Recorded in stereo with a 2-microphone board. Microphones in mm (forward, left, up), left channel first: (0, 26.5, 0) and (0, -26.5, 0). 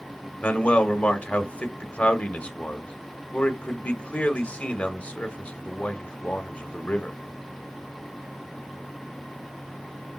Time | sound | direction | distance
0.4 | a man speaking | 30° left (ahead or behind) | 0.9 m